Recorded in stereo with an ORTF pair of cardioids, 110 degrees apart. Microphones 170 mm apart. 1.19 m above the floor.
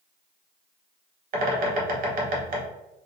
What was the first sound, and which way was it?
A bird, 60° right.